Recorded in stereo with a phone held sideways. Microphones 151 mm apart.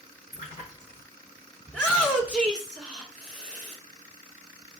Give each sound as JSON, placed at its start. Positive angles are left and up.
{"t": 0.3, "sound": "a splash", "side_deg": 60, "distance_m": 3.5}
{"t": 1.7, "sound": "a shout", "side_deg": 10, "distance_m": 1.2}